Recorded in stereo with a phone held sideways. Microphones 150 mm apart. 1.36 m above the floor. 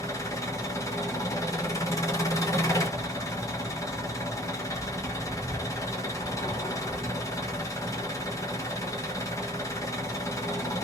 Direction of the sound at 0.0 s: 20° left (ahead or behind).